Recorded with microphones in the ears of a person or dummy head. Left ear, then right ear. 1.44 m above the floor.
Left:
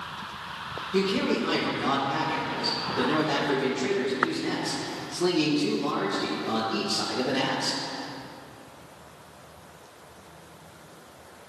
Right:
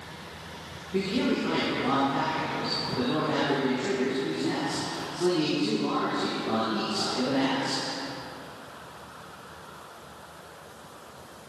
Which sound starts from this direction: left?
A man speaking, at 0.9 s.